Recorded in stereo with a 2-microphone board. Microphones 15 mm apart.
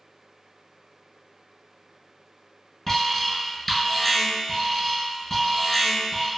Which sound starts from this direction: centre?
An alarm, at 2.9 s.